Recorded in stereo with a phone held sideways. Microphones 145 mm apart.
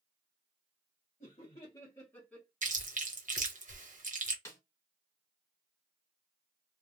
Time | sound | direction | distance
1.2 | laughter | 50° left (ahead or behind) | 0.9 m
2.6 | chewing | 60° right (ahead or behind) | 0.9 m
4.5 | a snare drum | 20° left (ahead or behind) | 1.5 m